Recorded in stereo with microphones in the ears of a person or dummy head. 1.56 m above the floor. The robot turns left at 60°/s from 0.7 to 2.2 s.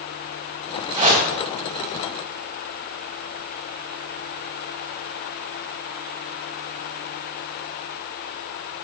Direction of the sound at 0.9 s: 35° right (ahead or behind).